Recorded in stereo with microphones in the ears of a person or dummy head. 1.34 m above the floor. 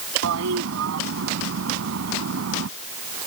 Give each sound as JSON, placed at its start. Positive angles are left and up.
{"t": 0.2, "sound": "a toilet flushing", "side_deg": -80}